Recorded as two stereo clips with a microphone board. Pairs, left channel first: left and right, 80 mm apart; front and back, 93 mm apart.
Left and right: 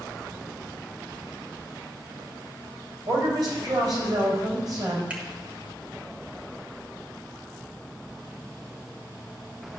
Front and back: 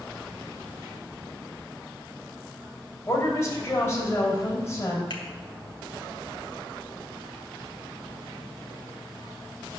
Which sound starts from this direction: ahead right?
A woman speaking, at 3.1 s.